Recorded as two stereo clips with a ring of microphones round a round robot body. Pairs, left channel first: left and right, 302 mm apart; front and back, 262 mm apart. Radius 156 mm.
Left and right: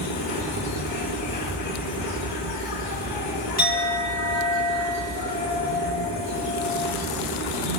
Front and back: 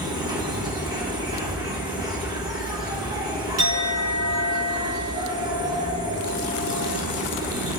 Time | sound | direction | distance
0.0 | an insect | 110° left | 2.5 m
3.6 | a clink | 150° left | 3.5 m